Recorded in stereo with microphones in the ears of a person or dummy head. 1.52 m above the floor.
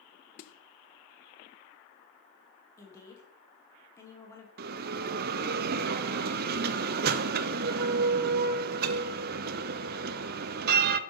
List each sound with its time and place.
0.4 s a snare drum: 55° left (ahead or behind), 0.6 m
2.8 s a woman speaking: 20° left (ahead or behind), 2 m
4.6 s a bell: 55° right (ahead or behind), 0.5 m